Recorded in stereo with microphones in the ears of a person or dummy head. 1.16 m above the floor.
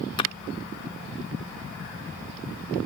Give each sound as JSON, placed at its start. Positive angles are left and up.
{"t": 0.2, "sound": "a splash", "side_deg": 35, "distance_m": 0.5}